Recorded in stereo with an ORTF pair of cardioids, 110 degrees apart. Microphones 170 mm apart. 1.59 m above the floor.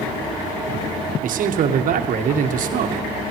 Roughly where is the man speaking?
Ahead right.